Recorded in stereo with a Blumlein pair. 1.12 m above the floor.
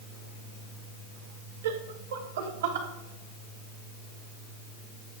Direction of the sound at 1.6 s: 60° right.